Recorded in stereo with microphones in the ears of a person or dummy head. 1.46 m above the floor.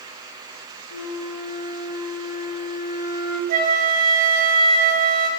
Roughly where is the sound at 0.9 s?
Left.